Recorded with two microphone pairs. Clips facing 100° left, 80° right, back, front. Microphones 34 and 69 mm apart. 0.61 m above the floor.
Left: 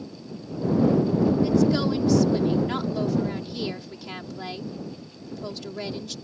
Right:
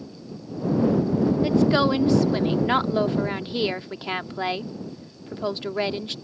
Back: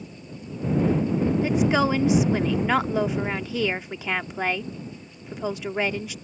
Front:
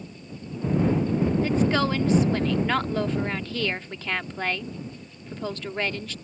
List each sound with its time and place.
1.4 s a woman speaking: 105° right